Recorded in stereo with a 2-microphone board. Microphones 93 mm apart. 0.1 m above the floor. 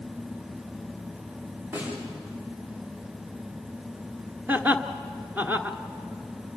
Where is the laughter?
20° right (ahead or behind), 1.1 m.